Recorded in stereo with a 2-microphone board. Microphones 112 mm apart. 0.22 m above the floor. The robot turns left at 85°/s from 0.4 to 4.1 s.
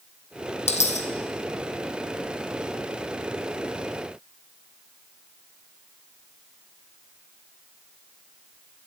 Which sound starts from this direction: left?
A dropped coin, at 0.7 s.